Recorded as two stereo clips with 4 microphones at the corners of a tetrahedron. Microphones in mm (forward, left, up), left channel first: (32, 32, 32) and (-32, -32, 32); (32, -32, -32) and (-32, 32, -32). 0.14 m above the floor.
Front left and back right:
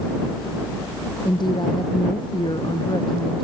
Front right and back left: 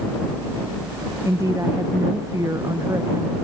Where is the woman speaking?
80° left.